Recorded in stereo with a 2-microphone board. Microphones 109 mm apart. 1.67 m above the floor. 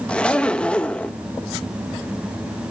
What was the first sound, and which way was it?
A zipper, 10° left (ahead or behind).